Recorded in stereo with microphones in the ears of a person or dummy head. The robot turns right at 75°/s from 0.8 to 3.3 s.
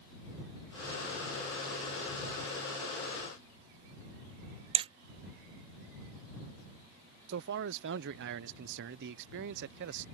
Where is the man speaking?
55° right (ahead or behind).